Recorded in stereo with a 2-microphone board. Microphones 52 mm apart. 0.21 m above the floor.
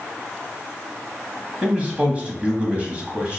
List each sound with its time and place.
1.6 s a man speaking: 25° right (ahead or behind), 1.0 m